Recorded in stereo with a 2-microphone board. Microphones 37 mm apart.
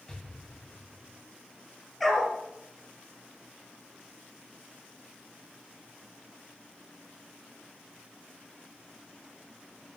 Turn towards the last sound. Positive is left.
turn(degrees=0)  # may be behind; listen again after turning